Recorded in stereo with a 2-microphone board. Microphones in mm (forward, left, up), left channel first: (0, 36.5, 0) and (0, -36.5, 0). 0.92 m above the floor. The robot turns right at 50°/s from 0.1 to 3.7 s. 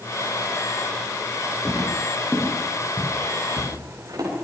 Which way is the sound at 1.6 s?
20° left (ahead or behind).